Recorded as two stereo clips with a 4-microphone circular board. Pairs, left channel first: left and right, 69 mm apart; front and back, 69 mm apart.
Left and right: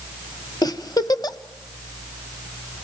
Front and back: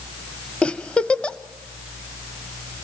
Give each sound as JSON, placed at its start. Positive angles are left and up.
{"t": 0.6, "sound": "a giggle", "azimuth_deg": 75, "distance_m": 0.8}